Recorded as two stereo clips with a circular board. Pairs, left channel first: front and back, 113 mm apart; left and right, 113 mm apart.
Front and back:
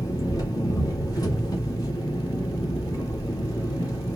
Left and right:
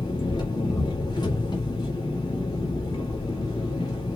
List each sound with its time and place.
0.0 s an engine running: 50° left, 1.7 m